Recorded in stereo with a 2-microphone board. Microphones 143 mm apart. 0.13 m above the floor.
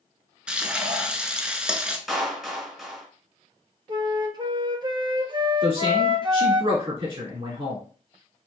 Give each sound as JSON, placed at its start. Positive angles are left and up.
{"t": 0.5, "sound": "frying", "side_deg": -5, "distance_m": 0.5}
{"t": 2.1, "sound": "a clap", "side_deg": 0, "distance_m": 1.1}
{"t": 3.9, "sound": "a flute", "side_deg": -35, "distance_m": 0.5}
{"t": 5.6, "sound": "a man speaking", "side_deg": -35, "distance_m": 1.5}